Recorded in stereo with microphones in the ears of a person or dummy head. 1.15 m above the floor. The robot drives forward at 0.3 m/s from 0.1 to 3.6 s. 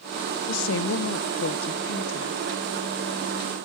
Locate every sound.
0.5 s a woman speaking: 70° left (ahead or behind), 0.6 m; by 2.4 s 50° left (ahead or behind), 0.7 m